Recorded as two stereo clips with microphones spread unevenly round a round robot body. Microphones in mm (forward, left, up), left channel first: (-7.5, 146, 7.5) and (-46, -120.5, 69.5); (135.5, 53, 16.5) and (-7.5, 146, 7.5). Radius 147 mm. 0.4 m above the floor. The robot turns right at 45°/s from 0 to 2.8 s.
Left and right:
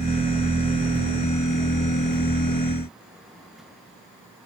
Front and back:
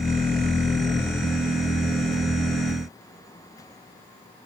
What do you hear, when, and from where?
Only background noise.